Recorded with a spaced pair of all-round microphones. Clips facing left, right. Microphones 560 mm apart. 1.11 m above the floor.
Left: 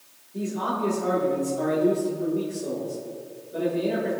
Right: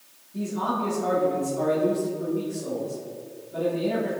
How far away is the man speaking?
About 2 m.